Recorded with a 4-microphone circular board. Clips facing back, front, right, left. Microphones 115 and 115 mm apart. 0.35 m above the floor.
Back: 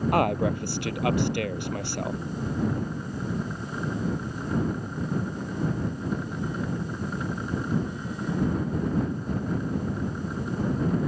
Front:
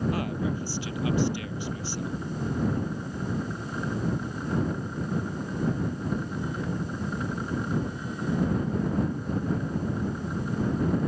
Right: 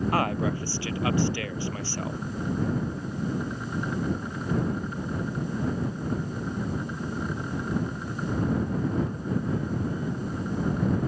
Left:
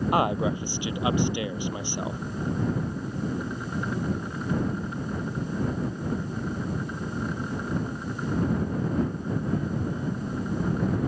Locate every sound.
0.1 s a man speaking: 160° left